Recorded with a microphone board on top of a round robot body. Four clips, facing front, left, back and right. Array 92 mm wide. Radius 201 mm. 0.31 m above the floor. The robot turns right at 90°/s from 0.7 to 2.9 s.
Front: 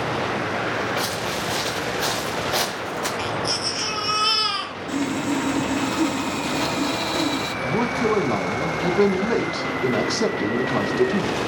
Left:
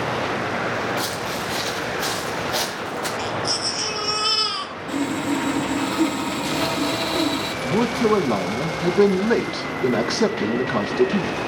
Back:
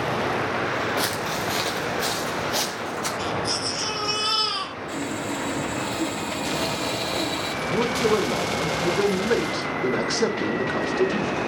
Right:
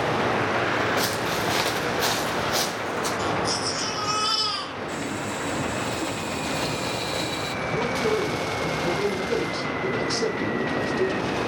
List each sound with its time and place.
1.0 s footsteps: 165° right, 2.5 m; by 3.1 s 30° left, 3.5 m
3.2 s a baby crying: 15° left, 3.5 m
4.9 s sawing: 50° left, 1.2 m
7.6 s a man speaking: 55° left, 3.5 m